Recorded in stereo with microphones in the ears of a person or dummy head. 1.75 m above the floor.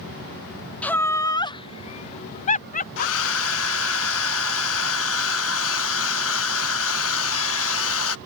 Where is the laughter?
5° left (ahead or behind); by 4.0 s 55° left (ahead or behind).